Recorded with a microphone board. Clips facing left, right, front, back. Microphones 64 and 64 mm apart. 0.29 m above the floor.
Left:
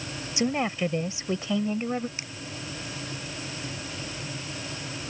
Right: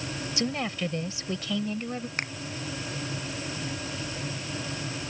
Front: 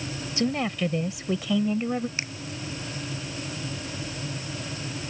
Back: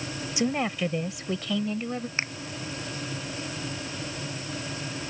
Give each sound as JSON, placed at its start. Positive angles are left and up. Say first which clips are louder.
{"t": 0.4, "sound": "a woman speaking", "louder": "left 5 dB, front 1 dB", "azimuth_deg": 125}
{"t": 2.2, "sound": "a finger snap", "louder": "right 7 dB, back 3 dB", "azimuth_deg": -125}